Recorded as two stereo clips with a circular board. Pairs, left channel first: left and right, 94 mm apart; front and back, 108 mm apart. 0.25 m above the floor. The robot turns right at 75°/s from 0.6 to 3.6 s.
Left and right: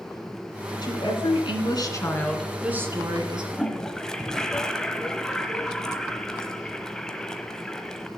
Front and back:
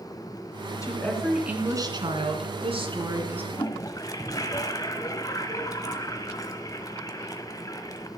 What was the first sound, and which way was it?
A woman speaking, 55° left.